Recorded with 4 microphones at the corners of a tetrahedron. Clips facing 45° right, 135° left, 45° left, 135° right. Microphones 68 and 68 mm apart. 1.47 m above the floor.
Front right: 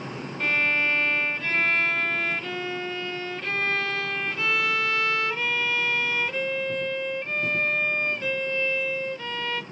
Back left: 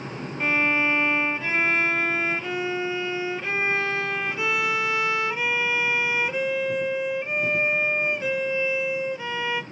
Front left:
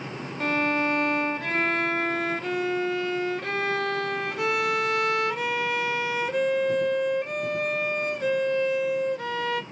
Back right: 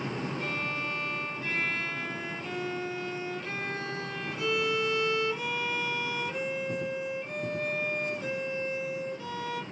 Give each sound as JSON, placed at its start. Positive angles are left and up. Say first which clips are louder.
{"t": 0.4, "sound": "a violin", "louder": "back left 2 dB, front left 9 dB", "azimuth_deg": 60, "distance_m": 0.8}